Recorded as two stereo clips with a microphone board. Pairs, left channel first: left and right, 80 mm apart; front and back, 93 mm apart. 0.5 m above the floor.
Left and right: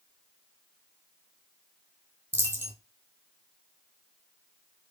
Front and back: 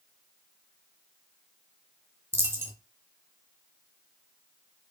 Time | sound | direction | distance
2.3 | a dropped coin | 135° right | 0.6 m